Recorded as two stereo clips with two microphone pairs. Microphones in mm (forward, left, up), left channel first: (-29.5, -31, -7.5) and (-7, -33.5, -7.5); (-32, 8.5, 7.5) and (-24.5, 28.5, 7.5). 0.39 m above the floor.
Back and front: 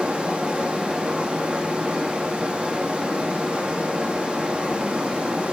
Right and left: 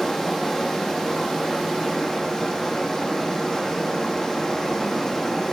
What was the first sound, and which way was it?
Running water, 35° right.